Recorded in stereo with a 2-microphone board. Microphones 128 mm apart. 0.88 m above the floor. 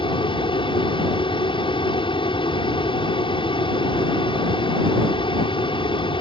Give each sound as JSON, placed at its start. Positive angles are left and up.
{"t": 0.0, "sound": "an aircraft", "side_deg": 40}